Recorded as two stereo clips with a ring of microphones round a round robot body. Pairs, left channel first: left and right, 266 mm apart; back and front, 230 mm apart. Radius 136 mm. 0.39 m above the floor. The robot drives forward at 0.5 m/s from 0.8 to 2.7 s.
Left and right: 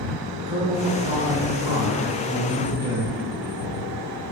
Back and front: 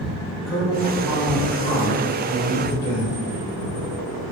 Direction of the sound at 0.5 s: 90° right.